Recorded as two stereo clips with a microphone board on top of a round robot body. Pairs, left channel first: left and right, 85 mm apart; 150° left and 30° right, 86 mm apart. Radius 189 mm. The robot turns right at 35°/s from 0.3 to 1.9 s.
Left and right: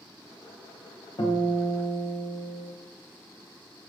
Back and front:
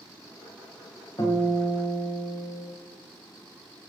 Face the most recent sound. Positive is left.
turn(degrees=135)